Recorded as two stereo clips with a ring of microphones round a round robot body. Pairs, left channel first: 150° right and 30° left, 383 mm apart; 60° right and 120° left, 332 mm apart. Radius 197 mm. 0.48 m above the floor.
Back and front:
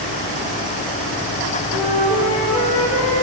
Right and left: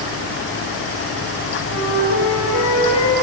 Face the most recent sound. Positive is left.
turn(degrees=-75)